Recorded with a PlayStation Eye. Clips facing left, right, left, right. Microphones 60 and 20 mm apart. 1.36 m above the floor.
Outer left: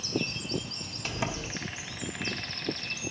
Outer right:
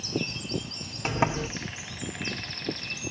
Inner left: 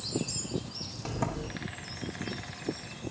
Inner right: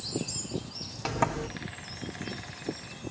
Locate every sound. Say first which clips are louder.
1.1 s a sliding door: outer right 7 dB, inner right 6 dB; 35° right (ahead or behind), 1.3 m